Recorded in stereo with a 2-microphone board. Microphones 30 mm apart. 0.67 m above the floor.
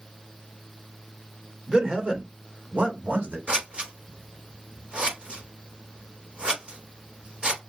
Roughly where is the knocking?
No knocking in this recording.